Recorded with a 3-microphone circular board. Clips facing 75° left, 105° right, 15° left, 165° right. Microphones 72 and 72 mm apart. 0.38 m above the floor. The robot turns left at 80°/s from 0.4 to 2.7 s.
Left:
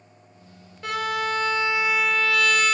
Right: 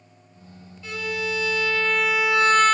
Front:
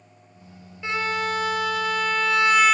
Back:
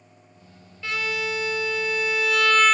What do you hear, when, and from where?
0.8 s a violin: 80° left, 1.4 m; by 2.7 s 70° right, 1.4 m